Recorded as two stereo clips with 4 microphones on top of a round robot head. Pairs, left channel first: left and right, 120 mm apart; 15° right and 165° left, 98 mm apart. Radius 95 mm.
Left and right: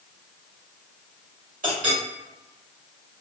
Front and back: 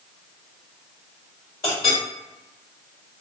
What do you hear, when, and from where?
1.6 s a clink: 75° right, 1.8 m